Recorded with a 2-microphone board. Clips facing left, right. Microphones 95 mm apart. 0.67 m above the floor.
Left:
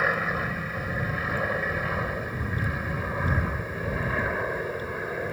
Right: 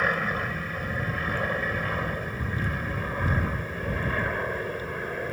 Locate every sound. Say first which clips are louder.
0.0 s an aircraft: even; 5° left (ahead or behind)